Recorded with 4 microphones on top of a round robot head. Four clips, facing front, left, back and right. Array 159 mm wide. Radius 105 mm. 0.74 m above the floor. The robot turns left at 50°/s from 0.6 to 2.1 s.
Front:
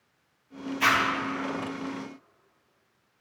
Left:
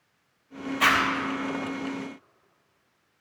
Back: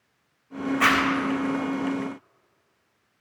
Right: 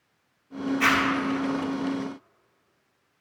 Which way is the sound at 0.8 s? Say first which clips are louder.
Left 1 dB, back 2 dB; 160° left.